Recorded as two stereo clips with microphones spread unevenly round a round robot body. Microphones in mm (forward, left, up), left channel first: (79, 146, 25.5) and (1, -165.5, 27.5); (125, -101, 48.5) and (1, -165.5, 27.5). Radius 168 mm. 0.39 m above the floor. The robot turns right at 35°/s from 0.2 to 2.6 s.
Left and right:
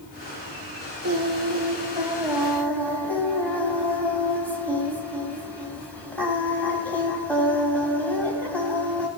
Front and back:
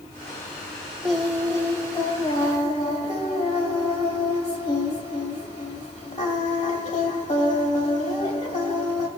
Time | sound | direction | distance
1.0 | singing | 65° right | 3 m